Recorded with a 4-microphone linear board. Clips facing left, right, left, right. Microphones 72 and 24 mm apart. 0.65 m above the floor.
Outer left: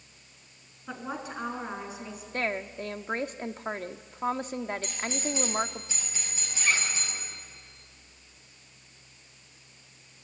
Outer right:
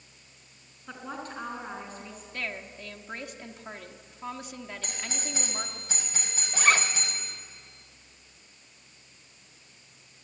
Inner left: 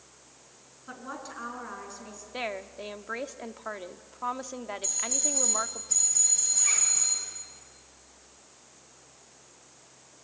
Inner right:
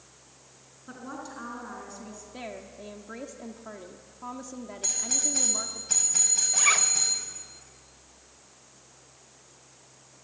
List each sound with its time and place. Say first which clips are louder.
0.9 s a woman speaking: outer left 2 dB, even; 10° left (ahead or behind), 6 m
2.3 s a woman speaking: outer left 7 dB, inner left 7 dB; 40° left (ahead or behind), 1.0 m
4.8 s a doorbell: outer left 5 dB, inner right 4 dB; 55° right (ahead or behind), 6.5 m
6.5 s a zipper: outer right 5 dB, inner right 9 dB; 70° right (ahead or behind), 1.3 m